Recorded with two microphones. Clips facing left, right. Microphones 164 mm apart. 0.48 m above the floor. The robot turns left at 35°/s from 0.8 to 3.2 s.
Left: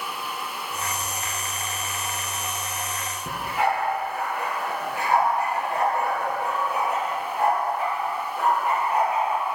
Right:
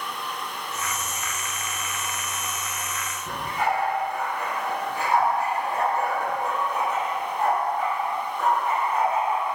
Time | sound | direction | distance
3.3 | a dog barking | 80° left | 3.5 m